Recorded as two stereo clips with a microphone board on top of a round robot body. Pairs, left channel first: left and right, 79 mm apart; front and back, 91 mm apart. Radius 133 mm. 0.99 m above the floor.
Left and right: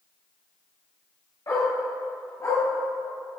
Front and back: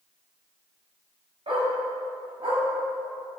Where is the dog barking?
145° left, 3 m.